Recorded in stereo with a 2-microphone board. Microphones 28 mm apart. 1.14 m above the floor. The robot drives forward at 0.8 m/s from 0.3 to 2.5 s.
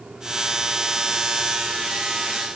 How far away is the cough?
I don't hear a cough.